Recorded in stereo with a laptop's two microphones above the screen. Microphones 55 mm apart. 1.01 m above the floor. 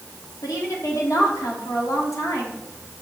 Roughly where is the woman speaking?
Left.